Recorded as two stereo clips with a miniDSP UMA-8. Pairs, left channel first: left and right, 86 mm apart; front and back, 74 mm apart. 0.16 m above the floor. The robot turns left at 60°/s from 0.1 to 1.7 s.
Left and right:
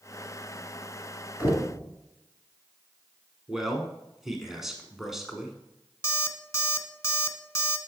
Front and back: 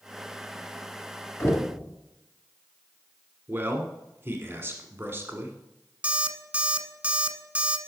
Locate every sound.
1.4 s knocking: 30° right, 1.7 m; by 1.8 s 45° right, 1.7 m
3.5 s a man speaking: 170° right, 1.2 m
6.0 s an alarm clock: 120° left, 1.0 m